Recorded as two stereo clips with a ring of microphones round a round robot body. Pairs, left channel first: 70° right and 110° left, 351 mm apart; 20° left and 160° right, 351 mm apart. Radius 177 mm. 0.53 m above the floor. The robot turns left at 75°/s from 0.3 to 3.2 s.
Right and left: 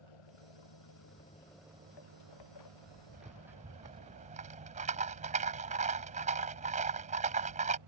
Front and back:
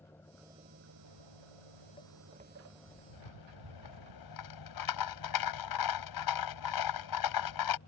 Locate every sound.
0.0 s an engine running: 60° right; by 7.9 s 80° left
1.1 s footsteps: 25° left; by 4.1 s 175° right
3.1 s a rattle: 50° left; by 7.8 s 45° left